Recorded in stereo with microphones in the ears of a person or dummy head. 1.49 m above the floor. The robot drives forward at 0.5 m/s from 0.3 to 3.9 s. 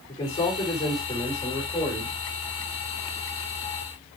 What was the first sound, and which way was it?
A man speaking, 15° left (ahead or behind).